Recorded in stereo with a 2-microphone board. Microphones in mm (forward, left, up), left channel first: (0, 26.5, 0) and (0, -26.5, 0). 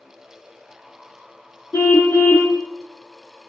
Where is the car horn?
55° left (ahead or behind), 6.5 m.